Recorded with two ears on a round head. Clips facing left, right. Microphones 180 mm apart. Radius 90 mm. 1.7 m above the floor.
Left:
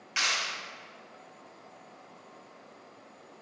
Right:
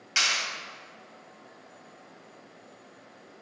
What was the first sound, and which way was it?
A clap, 55° right (ahead or behind).